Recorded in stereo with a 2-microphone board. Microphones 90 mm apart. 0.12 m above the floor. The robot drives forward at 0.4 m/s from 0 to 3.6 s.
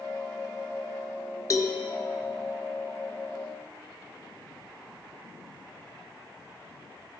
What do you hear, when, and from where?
1.5 s a cowbell: 40° left (ahead or behind), 0.8 m; by 1.8 s 45° left (ahead or behind), 0.8 m